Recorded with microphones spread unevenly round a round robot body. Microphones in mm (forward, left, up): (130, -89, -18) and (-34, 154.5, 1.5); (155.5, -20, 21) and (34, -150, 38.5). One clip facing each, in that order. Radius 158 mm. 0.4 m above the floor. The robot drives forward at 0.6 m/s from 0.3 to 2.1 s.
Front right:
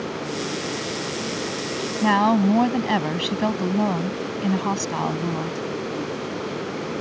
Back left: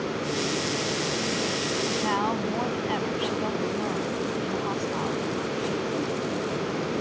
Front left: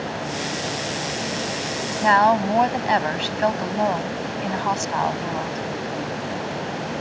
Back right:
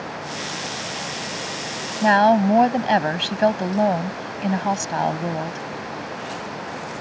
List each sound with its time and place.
2.0 s a woman speaking: 75° right